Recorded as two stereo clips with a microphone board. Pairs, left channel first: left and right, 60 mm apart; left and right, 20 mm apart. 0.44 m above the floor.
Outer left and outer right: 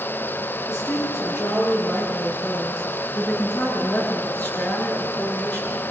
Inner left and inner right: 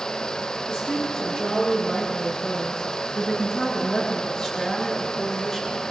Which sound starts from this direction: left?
A woman speaking, at 0.7 s.